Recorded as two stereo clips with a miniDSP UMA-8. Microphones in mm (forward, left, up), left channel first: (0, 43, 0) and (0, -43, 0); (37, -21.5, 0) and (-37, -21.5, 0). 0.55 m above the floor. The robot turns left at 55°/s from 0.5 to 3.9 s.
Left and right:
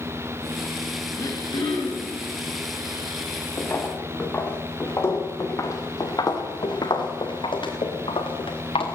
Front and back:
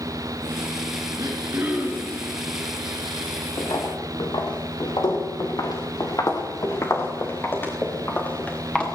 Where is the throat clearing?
145° left, 5.5 m; by 2.2 s 90° left, 5.5 m.